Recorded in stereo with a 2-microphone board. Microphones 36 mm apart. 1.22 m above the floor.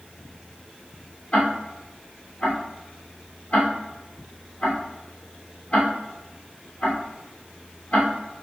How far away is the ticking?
About 1.9 m.